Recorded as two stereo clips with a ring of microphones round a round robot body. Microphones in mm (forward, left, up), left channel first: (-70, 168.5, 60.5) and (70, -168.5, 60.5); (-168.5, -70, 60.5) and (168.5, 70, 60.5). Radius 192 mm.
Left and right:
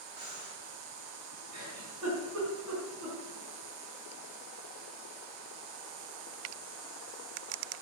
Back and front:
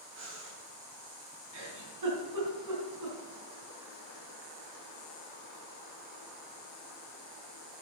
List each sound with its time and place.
0.1 s breathing: 35° right, 4 m
1.5 s a giggle: 20° right, 3.5 m